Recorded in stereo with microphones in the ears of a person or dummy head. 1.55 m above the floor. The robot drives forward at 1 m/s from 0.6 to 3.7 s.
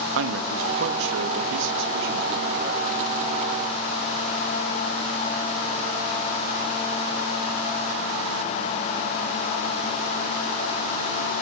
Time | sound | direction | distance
0.1 | a man speaking | 80° right | 2 m